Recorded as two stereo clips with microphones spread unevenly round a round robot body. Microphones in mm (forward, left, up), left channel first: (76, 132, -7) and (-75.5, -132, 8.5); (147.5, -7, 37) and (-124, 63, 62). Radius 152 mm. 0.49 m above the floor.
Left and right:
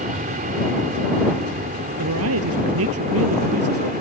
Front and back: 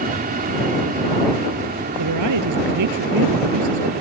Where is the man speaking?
165° right.